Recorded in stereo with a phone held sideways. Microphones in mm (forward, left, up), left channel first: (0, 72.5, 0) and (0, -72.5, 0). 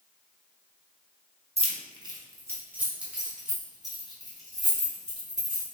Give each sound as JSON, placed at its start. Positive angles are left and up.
{"t": 1.6, "sound": "keys jangling", "side_deg": -45, "distance_m": 0.6}